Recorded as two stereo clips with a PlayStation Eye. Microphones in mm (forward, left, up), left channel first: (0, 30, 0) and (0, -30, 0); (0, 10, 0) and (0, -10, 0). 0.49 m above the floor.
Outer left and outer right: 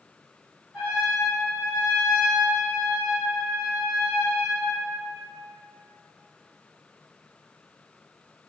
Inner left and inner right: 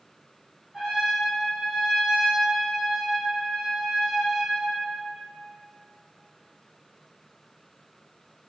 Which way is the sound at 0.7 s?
20° right (ahead or behind).